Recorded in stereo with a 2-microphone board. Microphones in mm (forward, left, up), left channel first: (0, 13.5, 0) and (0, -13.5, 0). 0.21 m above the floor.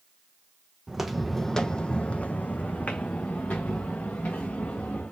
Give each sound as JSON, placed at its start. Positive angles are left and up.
{"t": 0.9, "sound": "footsteps", "side_deg": -10, "distance_m": 0.6}